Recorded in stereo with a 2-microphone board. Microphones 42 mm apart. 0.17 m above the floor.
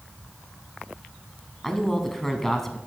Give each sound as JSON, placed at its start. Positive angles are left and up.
{"t": 1.6, "sound": "a man speaking", "side_deg": 5, "distance_m": 1.1}